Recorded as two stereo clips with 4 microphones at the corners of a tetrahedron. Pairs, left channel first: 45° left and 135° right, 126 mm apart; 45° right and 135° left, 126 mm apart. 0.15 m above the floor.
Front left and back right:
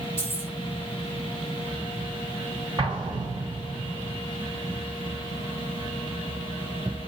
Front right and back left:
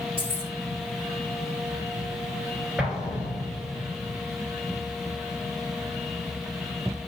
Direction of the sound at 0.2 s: 110° left.